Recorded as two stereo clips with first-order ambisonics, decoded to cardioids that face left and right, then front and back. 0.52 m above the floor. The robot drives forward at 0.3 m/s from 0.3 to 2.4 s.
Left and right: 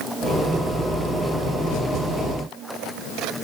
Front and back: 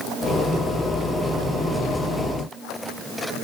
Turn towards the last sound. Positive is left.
No sound to turn to.